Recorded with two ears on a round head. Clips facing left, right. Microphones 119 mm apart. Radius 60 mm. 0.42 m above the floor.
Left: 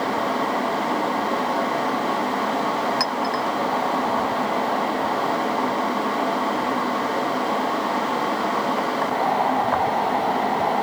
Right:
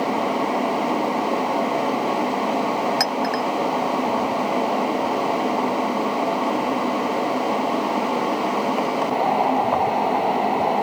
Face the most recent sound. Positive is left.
turn(degrees=-55)  # may be behind; listen again after turning